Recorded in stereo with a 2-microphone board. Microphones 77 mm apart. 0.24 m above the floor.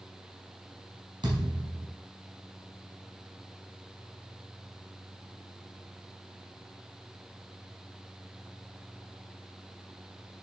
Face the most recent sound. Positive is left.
turn(degrees=-60)  # may be behind; listen again after turning